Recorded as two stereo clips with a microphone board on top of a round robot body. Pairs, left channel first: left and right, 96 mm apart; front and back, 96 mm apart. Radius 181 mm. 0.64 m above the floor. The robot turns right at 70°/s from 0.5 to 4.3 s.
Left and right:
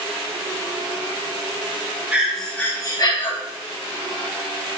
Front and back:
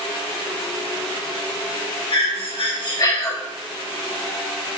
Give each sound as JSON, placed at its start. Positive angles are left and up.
{"t": 2.1, "sound": "breathing", "azimuth_deg": -15, "distance_m": 2.0}